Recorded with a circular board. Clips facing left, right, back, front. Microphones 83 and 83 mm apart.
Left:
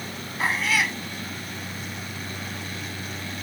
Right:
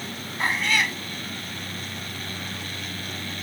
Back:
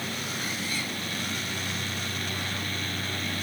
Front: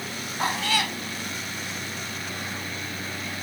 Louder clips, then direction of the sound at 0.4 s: Even, front 13 dB; 5° left.